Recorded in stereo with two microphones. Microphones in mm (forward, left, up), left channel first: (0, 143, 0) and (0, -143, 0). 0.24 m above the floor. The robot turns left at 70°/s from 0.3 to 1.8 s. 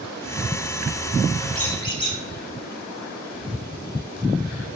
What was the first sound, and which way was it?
A squeak, 5° left (ahead or behind).